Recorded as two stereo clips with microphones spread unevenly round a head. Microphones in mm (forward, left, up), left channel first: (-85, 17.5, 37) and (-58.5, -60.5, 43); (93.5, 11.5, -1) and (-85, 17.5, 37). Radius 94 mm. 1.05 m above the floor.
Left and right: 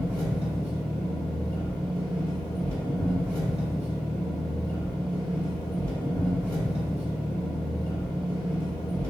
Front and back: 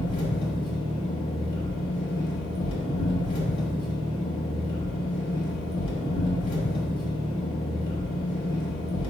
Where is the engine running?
60° left, 1.0 m.